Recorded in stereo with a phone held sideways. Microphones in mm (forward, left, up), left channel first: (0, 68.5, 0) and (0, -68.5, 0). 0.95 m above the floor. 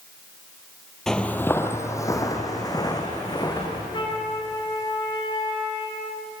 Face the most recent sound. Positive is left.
turn(degrees=35)  # may be behind; listen again after turning